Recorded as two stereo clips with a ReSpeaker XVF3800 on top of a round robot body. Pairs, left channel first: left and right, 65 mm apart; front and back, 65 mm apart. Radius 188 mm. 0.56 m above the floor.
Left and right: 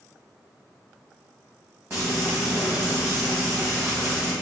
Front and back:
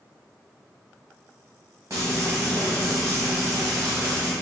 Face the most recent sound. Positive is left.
turn(degrees=-150)